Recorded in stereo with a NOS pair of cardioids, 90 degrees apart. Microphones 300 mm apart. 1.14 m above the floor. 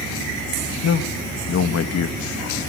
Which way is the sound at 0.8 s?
60° left.